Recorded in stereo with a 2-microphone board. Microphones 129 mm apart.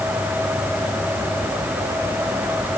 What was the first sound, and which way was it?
Only background noise.